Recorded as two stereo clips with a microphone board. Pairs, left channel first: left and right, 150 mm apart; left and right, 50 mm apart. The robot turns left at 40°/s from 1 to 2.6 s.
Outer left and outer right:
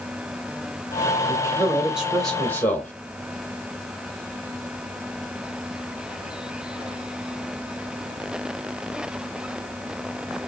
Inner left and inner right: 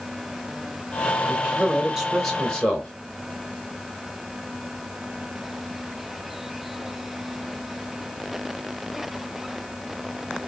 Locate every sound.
1.3 s a man speaking: 145° right, 1.9 m; by 2.9 s 160° left, 1.9 m